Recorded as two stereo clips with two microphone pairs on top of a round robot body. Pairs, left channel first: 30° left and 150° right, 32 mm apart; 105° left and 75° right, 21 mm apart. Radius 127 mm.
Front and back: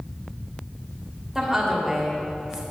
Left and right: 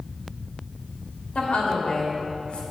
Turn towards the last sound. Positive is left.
turn(degrees=130)